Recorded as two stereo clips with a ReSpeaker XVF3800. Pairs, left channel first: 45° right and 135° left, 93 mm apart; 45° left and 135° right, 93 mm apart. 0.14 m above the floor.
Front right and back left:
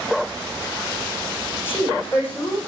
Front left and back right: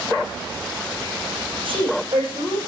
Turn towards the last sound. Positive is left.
turn(degrees=-110)